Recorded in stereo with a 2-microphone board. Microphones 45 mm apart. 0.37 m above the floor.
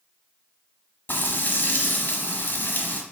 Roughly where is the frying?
Left.